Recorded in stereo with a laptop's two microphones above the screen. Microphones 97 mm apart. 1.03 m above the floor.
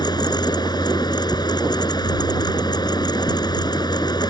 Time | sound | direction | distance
0.0 | a fan | 50° left (ahead or behind) | ?